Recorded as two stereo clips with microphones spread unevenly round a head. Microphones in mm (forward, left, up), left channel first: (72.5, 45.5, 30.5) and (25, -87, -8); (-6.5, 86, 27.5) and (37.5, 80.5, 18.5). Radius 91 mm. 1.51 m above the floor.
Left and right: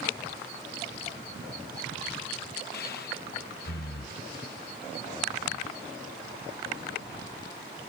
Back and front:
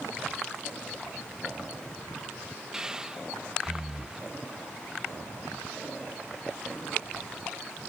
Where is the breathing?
70° left.